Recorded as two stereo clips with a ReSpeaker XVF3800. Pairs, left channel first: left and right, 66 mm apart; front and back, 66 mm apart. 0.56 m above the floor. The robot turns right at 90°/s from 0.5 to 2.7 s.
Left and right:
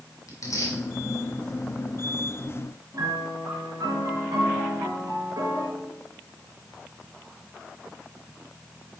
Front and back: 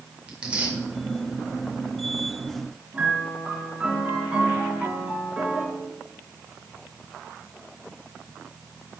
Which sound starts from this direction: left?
Tearing paper, at 0.3 s.